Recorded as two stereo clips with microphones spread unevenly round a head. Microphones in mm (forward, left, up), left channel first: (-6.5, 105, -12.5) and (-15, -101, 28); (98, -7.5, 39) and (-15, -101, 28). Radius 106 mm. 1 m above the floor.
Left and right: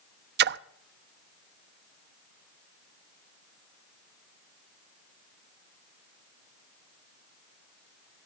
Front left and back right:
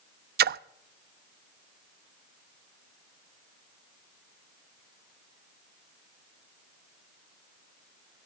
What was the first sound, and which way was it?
A splash, 130° right.